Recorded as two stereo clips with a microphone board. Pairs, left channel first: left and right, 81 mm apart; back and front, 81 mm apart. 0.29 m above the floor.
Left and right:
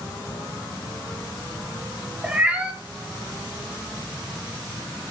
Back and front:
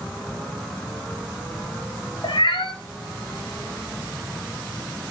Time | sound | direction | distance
2.2 | a cat meowing | 165° right | 1.7 m